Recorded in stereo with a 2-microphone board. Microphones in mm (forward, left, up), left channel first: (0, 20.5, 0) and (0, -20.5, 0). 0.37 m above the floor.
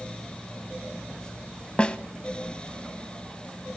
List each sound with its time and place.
1.8 s a snare drum: 25° left (ahead or behind), 0.5 m